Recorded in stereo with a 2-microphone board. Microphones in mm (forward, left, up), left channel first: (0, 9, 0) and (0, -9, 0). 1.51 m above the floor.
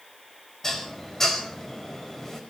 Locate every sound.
0.6 s dishes clattering: 30° left (ahead or behind), 4.5 m